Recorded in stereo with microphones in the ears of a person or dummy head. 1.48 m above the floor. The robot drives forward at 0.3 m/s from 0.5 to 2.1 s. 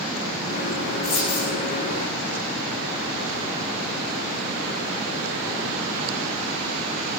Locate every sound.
1.0 s a dropped coin: 55° left (ahead or behind), 8.5 m